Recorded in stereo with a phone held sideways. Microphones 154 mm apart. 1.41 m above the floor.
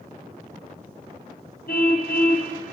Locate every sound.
1.7 s a car horn: 75° left (ahead or behind), 4 m